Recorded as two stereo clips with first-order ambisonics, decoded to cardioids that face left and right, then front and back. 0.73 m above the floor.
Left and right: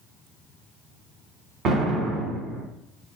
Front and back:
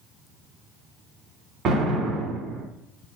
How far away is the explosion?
About 1.1 m.